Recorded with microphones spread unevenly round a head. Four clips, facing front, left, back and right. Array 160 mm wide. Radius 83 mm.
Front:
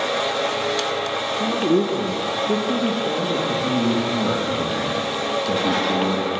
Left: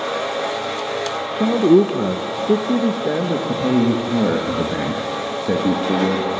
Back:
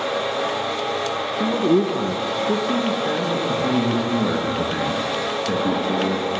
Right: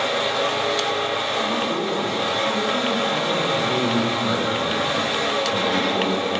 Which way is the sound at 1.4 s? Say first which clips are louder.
Left 10 dB, back 1 dB; 100° left.